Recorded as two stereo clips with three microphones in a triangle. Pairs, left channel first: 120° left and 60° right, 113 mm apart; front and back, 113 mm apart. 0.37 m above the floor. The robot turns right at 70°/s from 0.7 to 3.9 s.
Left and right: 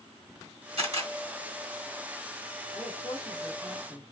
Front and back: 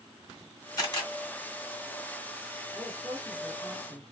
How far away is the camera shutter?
About 1.5 m.